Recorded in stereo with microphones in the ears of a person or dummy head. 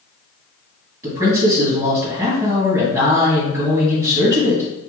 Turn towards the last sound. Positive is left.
turn(degrees=-15)  # may be behind; listen again after turning